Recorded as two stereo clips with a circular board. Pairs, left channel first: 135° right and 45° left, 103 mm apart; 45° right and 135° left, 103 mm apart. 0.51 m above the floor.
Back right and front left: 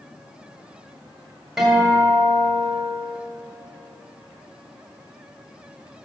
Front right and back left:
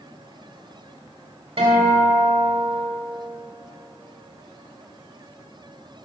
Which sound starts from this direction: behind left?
A guitar, at 1.6 s.